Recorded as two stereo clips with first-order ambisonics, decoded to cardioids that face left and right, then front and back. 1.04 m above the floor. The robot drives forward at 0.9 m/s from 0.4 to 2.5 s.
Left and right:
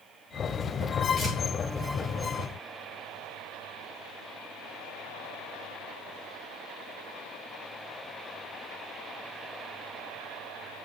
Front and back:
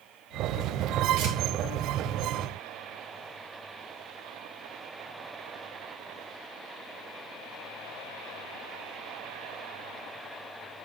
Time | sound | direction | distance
1.2 | tearing paper | 155° left | 2.5 m